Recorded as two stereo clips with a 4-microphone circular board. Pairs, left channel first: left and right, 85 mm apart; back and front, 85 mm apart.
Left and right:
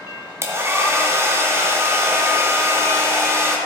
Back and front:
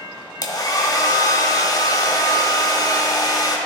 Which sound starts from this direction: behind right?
A hair dryer, at 0.4 s.